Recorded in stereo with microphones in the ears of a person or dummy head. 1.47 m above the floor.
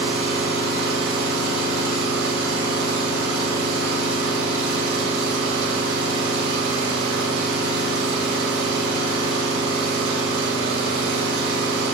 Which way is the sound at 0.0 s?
75° right (ahead or behind).